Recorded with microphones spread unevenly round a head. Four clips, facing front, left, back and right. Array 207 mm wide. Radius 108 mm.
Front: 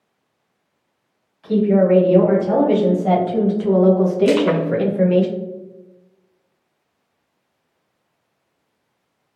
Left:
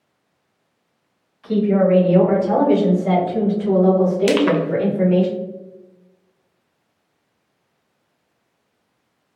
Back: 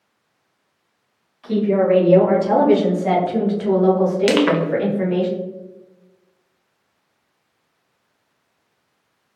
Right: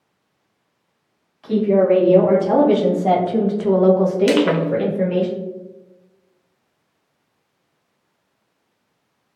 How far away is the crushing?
About 0.8 m.